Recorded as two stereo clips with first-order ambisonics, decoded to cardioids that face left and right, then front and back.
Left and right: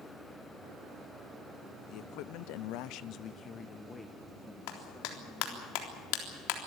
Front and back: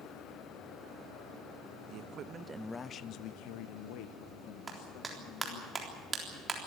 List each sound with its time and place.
1.9 s a man speaking: 135° left, 1.0 m; by 5.7 s straight ahead, 3 m
4.7 s a clap: 105° left, 3.5 m